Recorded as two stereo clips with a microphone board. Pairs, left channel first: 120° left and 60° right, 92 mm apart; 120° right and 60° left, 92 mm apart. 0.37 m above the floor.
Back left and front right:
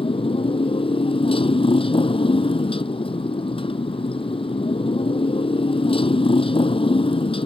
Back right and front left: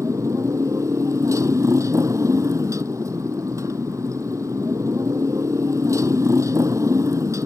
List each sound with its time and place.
0.0 s a motorcycle: 115° left